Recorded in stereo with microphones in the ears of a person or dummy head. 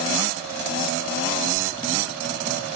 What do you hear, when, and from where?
1.5 s a zipper: 20° right (ahead or behind), 1.4 m